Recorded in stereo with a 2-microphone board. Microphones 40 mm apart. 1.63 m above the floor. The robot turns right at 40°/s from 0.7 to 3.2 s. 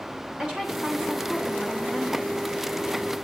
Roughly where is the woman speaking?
Ahead right.